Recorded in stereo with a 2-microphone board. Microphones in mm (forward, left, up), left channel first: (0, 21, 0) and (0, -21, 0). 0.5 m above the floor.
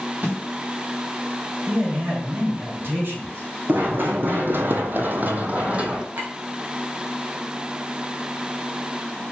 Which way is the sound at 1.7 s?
65° right (ahead or behind).